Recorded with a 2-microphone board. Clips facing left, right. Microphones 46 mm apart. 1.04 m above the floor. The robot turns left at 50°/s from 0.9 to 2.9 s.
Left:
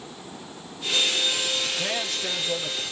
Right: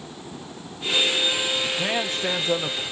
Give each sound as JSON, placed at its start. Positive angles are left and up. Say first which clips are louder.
{"t": 1.6, "sound": "a man speaking", "louder": "right 3 dB", "azimuth_deg": -10, "distance_m": 0.9}